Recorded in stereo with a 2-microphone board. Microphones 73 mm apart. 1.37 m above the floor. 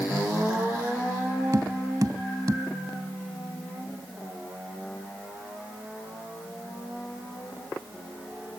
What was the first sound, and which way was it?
Tapping, 55° right (ahead or behind).